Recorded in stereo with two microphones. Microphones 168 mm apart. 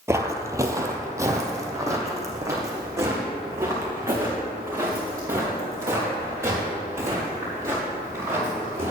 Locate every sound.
0.1 s footsteps: 15° right (ahead or behind), 0.8 m